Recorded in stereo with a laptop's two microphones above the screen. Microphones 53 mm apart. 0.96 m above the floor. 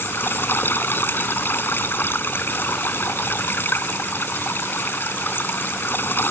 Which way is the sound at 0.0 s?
40° left (ahead or behind).